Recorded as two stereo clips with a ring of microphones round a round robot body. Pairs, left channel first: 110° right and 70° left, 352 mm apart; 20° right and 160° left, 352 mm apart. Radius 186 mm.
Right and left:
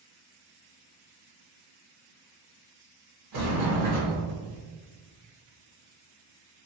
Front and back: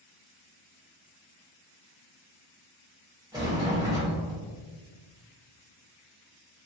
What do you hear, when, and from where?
3.3 s a sliding door: 80° left, 1.9 m